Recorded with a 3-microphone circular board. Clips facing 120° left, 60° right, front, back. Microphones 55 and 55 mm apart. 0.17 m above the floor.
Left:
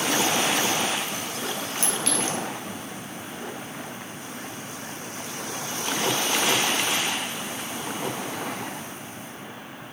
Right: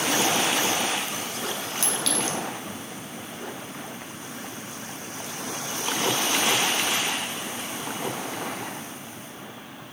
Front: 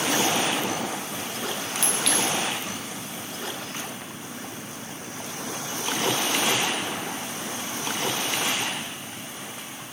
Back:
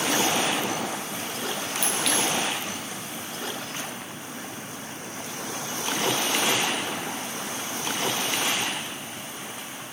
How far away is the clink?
About 1.0 m.